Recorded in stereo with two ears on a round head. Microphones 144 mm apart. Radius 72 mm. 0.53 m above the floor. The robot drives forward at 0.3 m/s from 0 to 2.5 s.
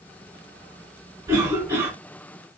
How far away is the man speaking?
I don't hear a man speaking.